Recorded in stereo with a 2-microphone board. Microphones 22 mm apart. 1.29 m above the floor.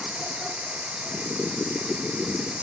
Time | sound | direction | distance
0.0 | running water | 85° right | ?